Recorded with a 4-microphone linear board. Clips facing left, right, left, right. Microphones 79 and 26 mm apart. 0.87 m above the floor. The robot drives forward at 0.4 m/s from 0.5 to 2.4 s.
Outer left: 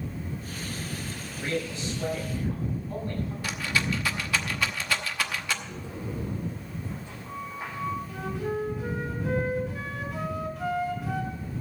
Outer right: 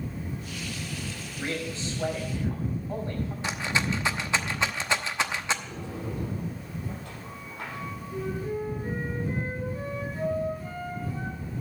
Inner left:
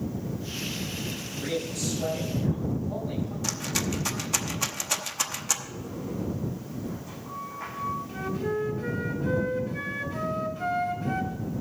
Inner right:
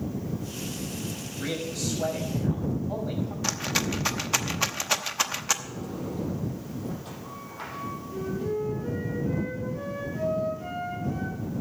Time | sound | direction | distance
1.4 | a man speaking | 30° right (ahead or behind) | 6 m
3.4 | a rattle | 20° right (ahead or behind) | 0.9 m
5.6 | a sliding door | 60° right (ahead or behind) | 6 m
8.1 | a flute | 80° left | 3.5 m